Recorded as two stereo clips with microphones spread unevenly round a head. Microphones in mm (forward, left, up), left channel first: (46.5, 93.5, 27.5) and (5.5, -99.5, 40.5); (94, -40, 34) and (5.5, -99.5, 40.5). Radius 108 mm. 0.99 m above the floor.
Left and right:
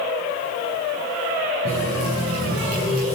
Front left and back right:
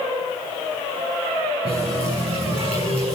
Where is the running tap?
130° right, 8.5 m.